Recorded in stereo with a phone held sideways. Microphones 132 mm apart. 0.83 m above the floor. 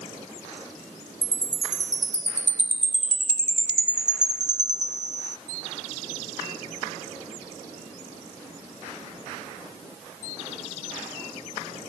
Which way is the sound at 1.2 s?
65° right (ahead or behind).